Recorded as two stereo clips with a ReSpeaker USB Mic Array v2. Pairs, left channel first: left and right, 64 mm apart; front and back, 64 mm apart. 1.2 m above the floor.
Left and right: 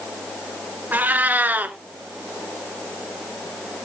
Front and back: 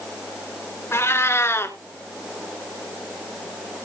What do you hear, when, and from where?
0.9 s a cat meowing: 35° right, 2 m